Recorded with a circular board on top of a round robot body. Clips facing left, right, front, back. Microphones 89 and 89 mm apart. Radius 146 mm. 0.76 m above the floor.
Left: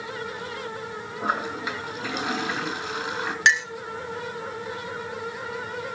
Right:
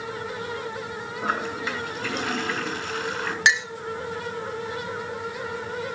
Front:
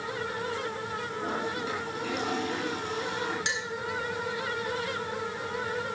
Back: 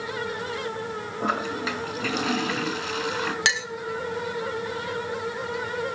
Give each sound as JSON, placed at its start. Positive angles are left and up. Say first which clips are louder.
{"t": 1.2, "sound": "a toilet flushing", "louder": "even, back 7 dB", "azimuth_deg": 165, "distance_m": 1.9}
{"t": 3.5, "sound": "a clink", "louder": "left 1 dB, back 6 dB", "azimuth_deg": 180, "distance_m": 1.0}